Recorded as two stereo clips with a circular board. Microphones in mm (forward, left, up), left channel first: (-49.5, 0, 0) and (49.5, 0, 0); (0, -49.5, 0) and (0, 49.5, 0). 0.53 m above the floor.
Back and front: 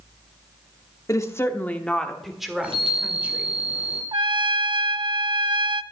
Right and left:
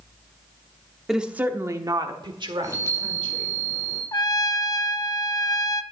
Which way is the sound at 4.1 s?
40° right.